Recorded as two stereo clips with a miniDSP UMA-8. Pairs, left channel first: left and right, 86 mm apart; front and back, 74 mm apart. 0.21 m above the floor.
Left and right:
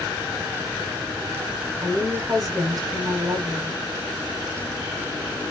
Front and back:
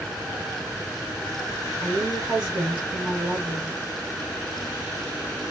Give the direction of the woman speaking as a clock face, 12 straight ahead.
4 o'clock.